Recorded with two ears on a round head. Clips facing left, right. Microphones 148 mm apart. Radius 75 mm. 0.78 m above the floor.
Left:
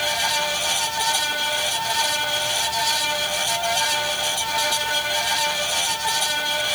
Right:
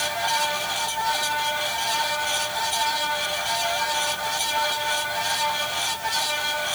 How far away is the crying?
I don't hear crying.